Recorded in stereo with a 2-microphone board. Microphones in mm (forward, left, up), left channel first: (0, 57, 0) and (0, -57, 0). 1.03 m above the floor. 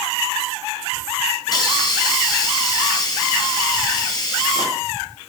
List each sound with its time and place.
1.5 s a hiss: 40° left (ahead or behind), 2 m